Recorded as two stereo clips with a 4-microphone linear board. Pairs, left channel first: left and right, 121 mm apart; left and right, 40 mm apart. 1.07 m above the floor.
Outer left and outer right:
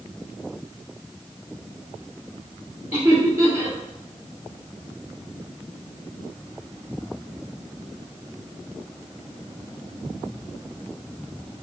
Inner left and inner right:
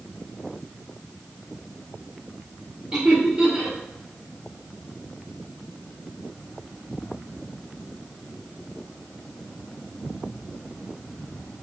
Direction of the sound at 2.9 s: 15° right (ahead or behind).